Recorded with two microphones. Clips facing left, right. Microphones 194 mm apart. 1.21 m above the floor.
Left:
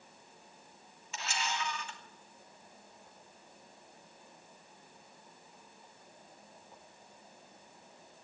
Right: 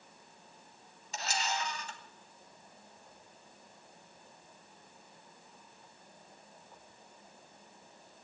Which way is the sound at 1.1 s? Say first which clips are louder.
Right 2 dB; 40° right (ahead or behind).